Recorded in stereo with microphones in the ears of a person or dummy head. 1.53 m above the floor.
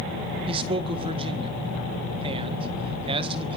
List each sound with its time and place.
0.5 s a man speaking: 30° right (ahead or behind), 1.8 m